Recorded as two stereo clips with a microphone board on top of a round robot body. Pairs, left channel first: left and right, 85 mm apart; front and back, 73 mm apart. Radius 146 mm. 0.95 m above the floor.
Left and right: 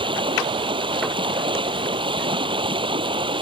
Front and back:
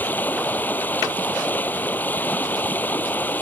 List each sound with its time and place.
0.0 s running water: 65° right